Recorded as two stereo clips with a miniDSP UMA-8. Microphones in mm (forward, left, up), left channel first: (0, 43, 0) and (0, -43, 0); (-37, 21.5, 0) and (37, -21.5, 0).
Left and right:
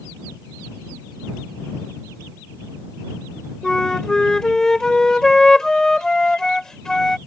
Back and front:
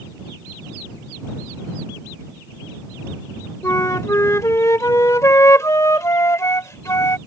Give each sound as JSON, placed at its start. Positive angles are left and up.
{"t": 3.6, "sound": "a flute", "azimuth_deg": 170}